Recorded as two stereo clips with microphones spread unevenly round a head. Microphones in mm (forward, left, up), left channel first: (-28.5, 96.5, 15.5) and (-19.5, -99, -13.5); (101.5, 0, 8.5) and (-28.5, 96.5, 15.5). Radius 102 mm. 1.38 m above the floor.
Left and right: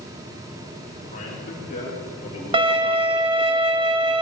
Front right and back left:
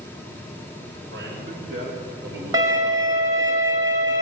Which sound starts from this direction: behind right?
A violin, at 2.5 s.